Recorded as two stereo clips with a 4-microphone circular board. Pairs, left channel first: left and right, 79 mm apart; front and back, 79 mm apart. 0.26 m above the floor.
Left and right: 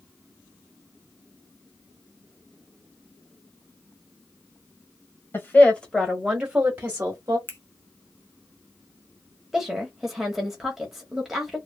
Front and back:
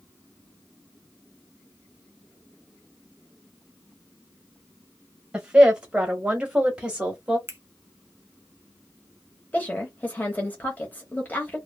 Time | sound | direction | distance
5.3 | a woman speaking | 110° left | 1.0 m
7.5 | a finger snap | 135° left | 1.0 m
9.5 | a woman speaking | 10° right | 0.9 m